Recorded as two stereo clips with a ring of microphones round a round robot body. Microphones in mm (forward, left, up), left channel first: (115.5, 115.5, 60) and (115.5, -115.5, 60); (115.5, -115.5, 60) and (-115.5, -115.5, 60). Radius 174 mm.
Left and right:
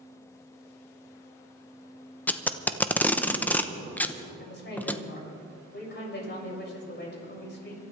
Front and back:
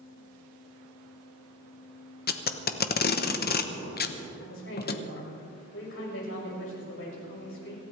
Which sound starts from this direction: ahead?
Tape being pulled, at 2.3 s.